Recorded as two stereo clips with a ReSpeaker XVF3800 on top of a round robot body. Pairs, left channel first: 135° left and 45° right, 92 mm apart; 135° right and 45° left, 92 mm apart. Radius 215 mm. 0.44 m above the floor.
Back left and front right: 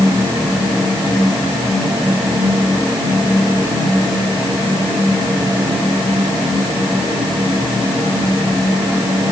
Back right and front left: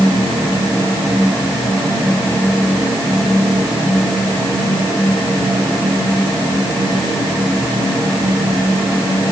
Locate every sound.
Only background noise.